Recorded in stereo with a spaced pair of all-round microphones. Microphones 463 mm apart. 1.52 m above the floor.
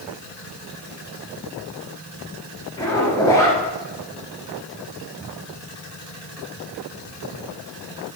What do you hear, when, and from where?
2.8 s a zipper: 10° left (ahead or behind), 3.5 m